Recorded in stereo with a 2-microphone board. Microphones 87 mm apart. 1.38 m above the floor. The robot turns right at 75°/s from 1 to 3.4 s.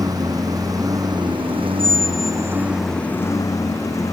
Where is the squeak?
10° left (ahead or behind); by 2.7 s 10° right (ahead or behind).